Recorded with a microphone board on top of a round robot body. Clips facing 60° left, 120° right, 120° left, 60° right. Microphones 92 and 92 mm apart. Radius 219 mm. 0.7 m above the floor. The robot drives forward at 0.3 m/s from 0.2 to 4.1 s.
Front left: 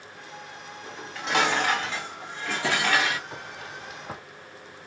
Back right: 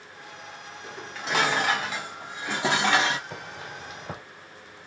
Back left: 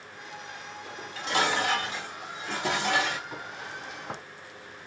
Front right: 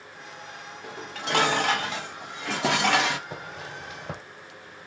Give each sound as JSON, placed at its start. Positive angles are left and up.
{"t": 0.8, "sound": "dishes clattering", "azimuth_deg": -30, "distance_m": 1.2}
{"t": 3.3, "sound": "footsteps", "azimuth_deg": -55, "distance_m": 1.3}